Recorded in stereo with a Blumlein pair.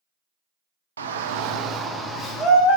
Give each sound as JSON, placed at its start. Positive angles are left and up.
{"t": 1.0, "sound": "a shout", "azimuth_deg": -70, "distance_m": 0.6}